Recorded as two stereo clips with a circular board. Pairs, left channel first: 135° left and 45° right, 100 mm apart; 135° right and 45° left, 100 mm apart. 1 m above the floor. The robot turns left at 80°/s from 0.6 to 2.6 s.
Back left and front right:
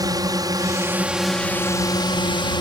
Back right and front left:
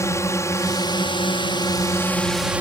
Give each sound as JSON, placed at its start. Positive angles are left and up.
{"t": 0.0, "sound": "a drone", "azimuth_deg": -80}